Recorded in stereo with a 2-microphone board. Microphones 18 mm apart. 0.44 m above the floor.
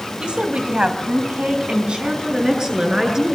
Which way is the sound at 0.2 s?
60° right (ahead or behind).